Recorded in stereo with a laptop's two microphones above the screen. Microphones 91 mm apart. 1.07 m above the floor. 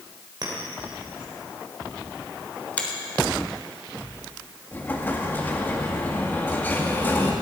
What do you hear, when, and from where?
0.4 s a clink: 50° right (ahead or behind), 3 m
2.8 s a finger snap: 15° left (ahead or behind), 3 m
4.7 s an explosion: 20° left (ahead or behind), 1.9 m